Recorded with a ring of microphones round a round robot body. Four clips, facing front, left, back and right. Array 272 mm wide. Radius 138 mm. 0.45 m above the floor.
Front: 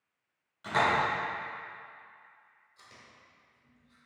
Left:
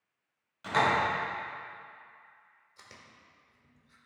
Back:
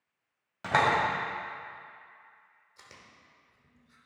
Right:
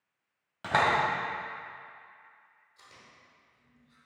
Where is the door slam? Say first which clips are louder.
Right 1 dB, back 2 dB; 145° right, 2.5 m.